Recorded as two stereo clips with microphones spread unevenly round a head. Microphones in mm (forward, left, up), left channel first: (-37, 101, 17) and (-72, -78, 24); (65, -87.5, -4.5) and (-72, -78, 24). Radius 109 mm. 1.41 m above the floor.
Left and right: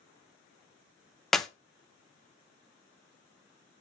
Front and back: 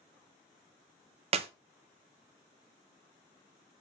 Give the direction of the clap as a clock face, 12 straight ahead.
6 o'clock.